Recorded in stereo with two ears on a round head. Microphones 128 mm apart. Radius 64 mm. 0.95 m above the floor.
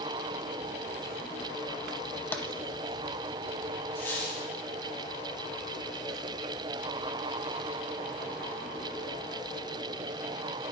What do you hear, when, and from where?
2.3 s tapping: 15° left (ahead or behind), 1.0 m
4.0 s a squeak: 15° left (ahead or behind), 5.5 m